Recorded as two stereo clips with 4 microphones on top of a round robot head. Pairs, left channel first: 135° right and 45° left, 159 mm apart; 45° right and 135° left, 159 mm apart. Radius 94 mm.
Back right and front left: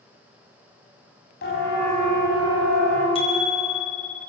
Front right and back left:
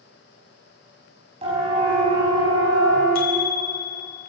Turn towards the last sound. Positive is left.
turn(degrees=-80)